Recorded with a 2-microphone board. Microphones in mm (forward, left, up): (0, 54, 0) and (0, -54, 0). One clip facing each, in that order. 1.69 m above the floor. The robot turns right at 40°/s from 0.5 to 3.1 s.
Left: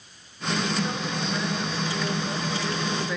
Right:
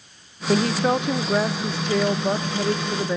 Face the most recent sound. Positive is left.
turn(degrees=-30)